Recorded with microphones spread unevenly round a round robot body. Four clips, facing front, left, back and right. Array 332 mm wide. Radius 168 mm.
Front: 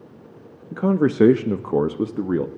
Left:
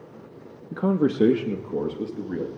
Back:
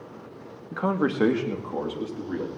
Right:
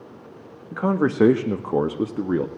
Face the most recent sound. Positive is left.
turn(degrees=-50)